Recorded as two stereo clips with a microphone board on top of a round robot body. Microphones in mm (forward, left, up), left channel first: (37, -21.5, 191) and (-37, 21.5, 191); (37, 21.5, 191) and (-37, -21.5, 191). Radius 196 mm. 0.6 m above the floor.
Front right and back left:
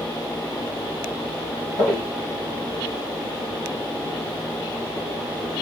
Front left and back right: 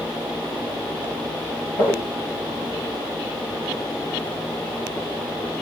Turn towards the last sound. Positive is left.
turn(degrees=15)